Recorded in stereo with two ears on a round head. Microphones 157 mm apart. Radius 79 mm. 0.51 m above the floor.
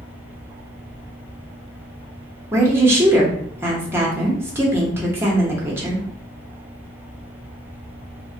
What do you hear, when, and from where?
2.5 s a woman speaking: 15° right (ahead or behind), 0.8 m